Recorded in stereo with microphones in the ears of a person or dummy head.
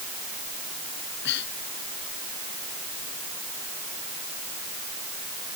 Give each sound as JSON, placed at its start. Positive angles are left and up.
{"t": 1.0, "sound": "breathing", "side_deg": 60}